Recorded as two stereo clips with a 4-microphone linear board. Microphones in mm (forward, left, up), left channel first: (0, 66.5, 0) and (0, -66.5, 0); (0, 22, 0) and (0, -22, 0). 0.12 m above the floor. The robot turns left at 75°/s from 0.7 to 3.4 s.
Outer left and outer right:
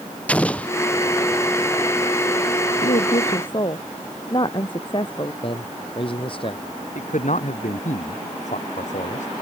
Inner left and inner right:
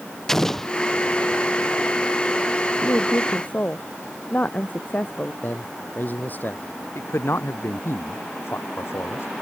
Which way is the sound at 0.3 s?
10° left (ahead or behind).